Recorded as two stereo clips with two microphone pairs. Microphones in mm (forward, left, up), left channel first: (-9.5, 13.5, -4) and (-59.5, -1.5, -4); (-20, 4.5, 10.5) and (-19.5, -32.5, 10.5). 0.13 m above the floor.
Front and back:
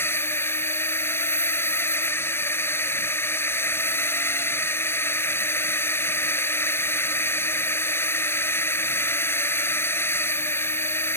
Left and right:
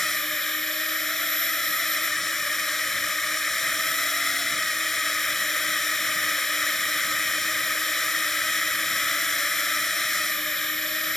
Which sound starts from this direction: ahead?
A drone, at 0.0 s.